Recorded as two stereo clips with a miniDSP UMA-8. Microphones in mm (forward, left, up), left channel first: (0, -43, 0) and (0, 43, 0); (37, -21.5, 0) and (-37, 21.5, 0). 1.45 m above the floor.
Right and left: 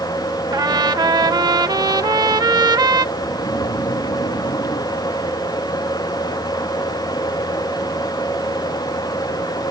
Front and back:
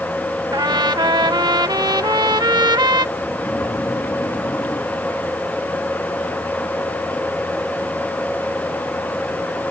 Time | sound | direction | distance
0.5 | a trumpet | 120° left | ?
3.1 | snoring | 70° right | ?